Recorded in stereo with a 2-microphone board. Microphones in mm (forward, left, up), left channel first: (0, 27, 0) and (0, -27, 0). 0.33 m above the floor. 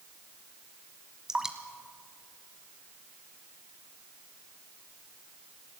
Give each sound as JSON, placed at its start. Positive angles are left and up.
{"t": 1.3, "sound": "dripping", "side_deg": -10, "distance_m": 1.6}